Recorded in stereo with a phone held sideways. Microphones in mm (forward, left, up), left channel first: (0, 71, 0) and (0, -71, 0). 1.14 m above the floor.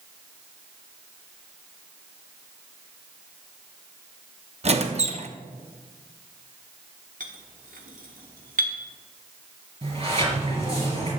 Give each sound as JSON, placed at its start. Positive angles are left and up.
{"t": 4.6, "sound": "a squeak", "side_deg": -50, "distance_m": 0.9}
{"t": 7.2, "sound": "a clink", "side_deg": -70, "distance_m": 1.5}
{"t": 9.8, "sound": "a sliding door", "side_deg": -45, "distance_m": 4.5}